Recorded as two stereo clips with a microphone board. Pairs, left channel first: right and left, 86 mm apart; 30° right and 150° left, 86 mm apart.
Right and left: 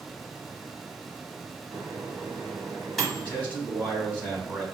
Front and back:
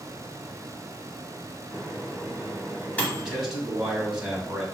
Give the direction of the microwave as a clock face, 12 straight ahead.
12 o'clock.